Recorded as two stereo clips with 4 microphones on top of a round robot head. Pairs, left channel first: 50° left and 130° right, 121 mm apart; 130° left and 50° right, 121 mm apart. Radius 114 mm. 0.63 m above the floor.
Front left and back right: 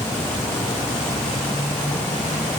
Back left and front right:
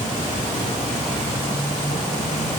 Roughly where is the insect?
Behind left.